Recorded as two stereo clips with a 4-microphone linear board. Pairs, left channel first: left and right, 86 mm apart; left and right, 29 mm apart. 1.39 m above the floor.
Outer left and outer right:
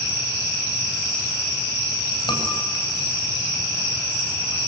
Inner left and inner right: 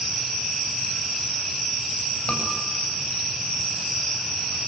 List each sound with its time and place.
2.3 s a scream: 65° left (ahead or behind), 9 m